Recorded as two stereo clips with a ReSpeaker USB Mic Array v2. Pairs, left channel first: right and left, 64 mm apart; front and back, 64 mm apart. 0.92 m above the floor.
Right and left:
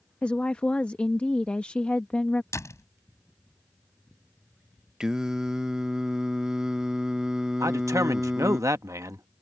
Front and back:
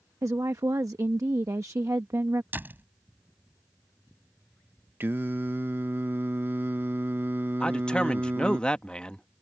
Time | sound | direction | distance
0.2 | a woman speaking | 160° right | ?
2.5 | a door slam | 125° right | ?
5.0 | singing | 160° left | ?
7.6 | a man speaking | 70° left | ?